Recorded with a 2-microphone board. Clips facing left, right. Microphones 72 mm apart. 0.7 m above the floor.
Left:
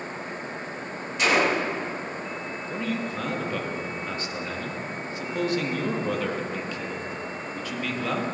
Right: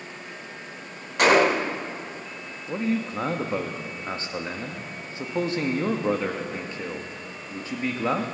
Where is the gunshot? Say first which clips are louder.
Right 4 dB; 60° right (ahead or behind), 1.1 m.